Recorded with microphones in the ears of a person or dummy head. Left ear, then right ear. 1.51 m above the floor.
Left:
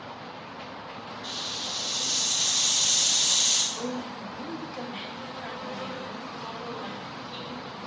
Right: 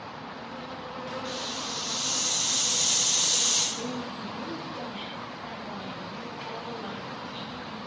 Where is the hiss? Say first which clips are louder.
Left 4 dB; 35° left (ahead or behind), 3 m.